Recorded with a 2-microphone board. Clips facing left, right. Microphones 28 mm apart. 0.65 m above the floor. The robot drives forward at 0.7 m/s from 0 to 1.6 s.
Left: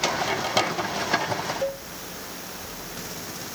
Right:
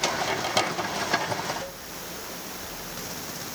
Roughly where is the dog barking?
No dog barking in this recording.